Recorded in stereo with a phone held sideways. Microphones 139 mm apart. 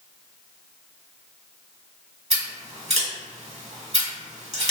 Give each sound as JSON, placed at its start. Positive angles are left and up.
{"t": 2.3, "sound": "scissors", "side_deg": -50, "distance_m": 1.3}